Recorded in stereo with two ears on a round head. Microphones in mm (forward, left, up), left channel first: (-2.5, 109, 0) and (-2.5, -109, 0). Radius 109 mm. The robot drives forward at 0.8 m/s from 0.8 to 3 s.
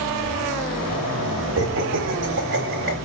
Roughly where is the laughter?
Right.